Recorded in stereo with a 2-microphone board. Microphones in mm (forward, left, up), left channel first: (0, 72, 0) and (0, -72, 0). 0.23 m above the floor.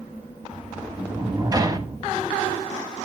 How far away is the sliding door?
About 1.1 m.